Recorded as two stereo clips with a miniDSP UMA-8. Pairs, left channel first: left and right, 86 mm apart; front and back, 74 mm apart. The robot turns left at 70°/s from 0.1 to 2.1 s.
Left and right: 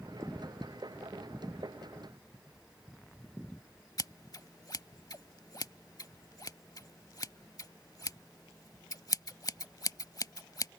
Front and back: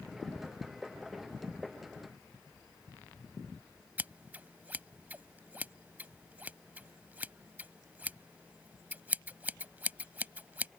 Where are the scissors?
120° left.